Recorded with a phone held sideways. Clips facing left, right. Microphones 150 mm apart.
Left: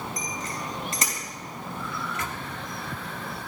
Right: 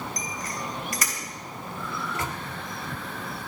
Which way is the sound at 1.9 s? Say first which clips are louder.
Right 4 dB; 30° right (ahead or behind).